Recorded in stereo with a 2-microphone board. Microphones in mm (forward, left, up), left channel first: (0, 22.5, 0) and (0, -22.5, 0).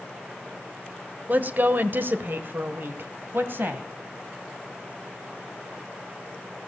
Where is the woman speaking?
40° right (ahead or behind), 1.2 m; by 3.9 s 50° right (ahead or behind), 2 m.